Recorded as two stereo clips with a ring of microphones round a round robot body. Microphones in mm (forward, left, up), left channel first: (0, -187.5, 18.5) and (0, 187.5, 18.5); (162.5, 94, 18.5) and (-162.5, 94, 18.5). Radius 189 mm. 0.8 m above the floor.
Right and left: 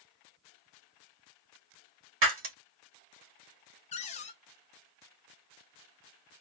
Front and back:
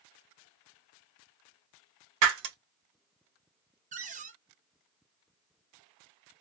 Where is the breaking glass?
150° left, 1.3 m.